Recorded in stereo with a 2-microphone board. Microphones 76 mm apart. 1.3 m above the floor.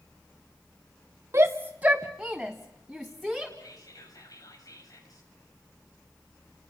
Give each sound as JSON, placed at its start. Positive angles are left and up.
{"t": 1.3, "sound": "a shout", "side_deg": -35, "distance_m": 0.7}
{"t": 3.6, "sound": "whispering", "side_deg": 50, "distance_m": 7.5}